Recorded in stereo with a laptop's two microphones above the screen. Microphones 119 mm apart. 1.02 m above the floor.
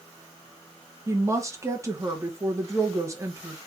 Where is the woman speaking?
25° right (ahead or behind), 1.1 m.